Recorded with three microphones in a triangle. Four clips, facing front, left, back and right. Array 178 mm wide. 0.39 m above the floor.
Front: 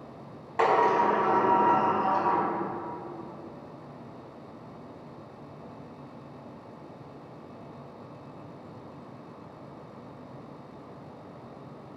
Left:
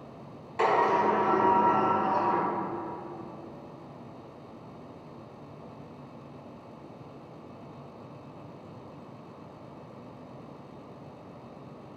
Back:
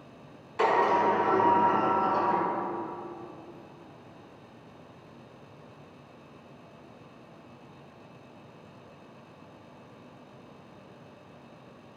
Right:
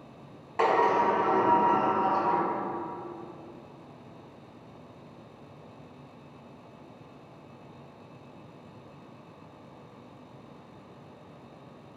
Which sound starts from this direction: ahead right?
A sliding door, at 0.6 s.